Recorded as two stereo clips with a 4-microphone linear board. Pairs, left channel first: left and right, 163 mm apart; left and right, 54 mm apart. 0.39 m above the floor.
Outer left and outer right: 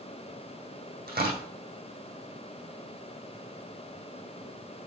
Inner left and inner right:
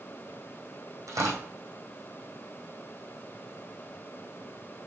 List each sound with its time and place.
1.1 s tearing paper: 80° right, 3 m